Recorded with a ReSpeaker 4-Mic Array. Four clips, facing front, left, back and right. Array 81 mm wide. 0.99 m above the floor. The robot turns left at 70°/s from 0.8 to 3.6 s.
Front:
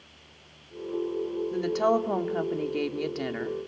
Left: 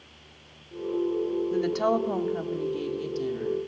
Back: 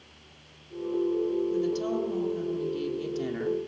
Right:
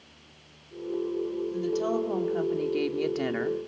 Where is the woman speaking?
60° left, 2.5 m; by 3.6 s 90° right, 2.5 m.